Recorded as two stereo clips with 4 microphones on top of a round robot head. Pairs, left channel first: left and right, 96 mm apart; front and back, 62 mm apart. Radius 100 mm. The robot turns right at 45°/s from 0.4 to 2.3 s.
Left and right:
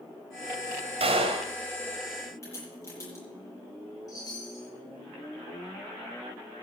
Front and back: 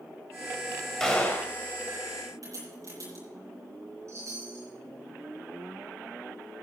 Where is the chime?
140° left, 6 m.